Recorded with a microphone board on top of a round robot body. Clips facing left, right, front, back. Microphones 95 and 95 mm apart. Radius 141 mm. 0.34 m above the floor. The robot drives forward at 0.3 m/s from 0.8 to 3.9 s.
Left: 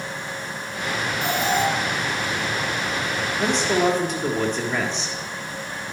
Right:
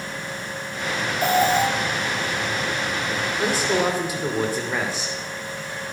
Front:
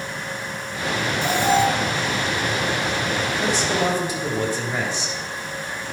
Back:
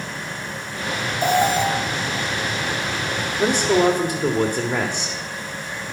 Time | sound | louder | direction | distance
1.2 | an alarm | right 5 dB, back 1 dB | 140° right | 2.5 m
3.4 | a man speaking | left 2 dB, back 7 dB | 170° right | 1.7 m